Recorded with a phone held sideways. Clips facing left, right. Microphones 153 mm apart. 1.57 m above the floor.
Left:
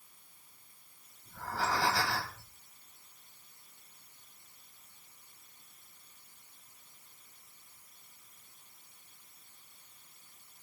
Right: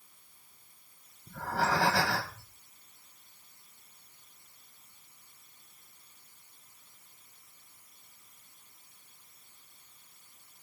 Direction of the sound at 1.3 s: 70° right (ahead or behind).